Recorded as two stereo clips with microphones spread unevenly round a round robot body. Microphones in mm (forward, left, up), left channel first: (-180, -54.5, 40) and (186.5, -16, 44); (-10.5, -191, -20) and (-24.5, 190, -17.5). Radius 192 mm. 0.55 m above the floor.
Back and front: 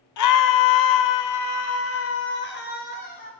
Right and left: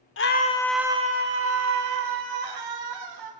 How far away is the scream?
About 1.1 m.